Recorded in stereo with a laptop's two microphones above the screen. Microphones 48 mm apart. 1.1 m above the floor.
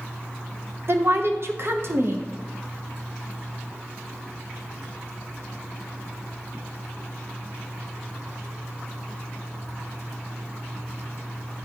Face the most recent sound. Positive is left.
turn(degrees=-55)  # may be behind; listen again after turning